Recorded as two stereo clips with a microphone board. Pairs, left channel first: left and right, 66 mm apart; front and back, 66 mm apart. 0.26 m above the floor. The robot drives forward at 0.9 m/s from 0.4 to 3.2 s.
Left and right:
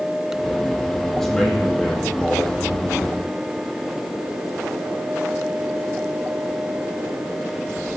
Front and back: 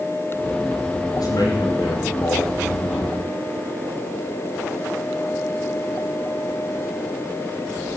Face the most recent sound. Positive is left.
turn(degrees=5)